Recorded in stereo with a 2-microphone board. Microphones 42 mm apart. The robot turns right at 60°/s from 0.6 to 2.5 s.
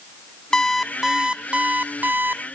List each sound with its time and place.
0.5 s an alarm clock: 165° left, 0.6 m; by 2.4 s 85° right, 0.6 m